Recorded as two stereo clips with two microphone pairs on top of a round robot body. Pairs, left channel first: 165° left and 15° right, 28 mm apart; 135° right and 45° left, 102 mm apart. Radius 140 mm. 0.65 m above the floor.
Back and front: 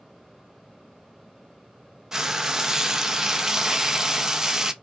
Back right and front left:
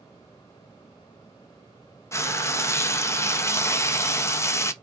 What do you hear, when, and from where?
2.1 s frying: 85° right, 0.6 m